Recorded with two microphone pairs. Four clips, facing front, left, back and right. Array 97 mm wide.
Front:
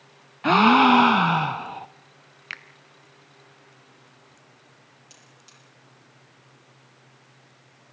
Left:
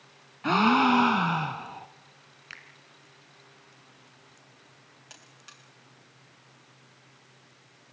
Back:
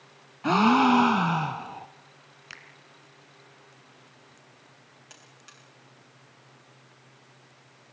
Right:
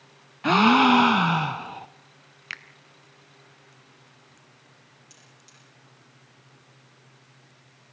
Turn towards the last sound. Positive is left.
turn(degrees=110)